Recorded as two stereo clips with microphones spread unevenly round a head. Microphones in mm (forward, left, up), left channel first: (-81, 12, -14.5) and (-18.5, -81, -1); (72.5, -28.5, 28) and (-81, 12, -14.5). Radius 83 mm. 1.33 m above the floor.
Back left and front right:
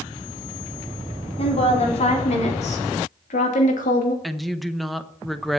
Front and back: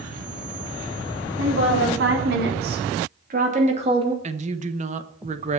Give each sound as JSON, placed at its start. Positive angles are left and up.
{"t": 1.4, "sound": "a woman speaking", "azimuth_deg": 155, "distance_m": 4.5}
{"t": 4.2, "sound": "a woman speaking", "azimuth_deg": -145, "distance_m": 1.0}